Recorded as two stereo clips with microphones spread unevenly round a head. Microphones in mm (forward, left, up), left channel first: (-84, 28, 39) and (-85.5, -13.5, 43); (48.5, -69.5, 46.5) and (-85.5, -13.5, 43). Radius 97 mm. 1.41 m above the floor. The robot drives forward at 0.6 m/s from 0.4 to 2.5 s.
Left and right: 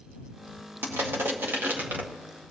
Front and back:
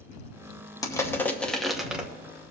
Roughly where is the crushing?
Right.